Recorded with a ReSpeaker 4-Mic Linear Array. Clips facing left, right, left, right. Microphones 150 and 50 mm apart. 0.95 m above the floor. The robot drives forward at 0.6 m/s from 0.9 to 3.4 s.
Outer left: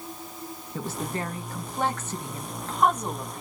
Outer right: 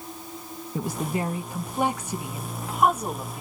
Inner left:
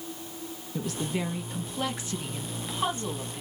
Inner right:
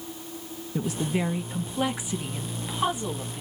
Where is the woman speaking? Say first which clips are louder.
Outer right 4 dB, inner right 4 dB; 10° right (ahead or behind), 0.6 m; by 3.4 s 5° right (ahead or behind), 1.3 m.